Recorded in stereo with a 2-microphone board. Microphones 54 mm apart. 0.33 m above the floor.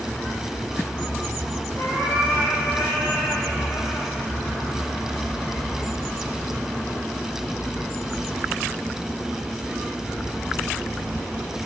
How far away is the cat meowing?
About 5.5 m.